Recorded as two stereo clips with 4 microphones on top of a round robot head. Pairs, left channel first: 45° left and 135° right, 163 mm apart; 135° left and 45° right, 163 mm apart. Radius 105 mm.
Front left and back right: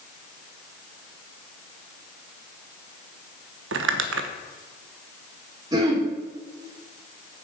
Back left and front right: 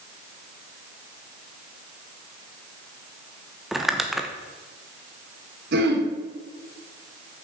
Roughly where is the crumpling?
Behind right.